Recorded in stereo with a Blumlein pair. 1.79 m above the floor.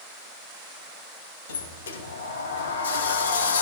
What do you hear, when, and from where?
1.5 s a sliding door: 65° left, 2.5 m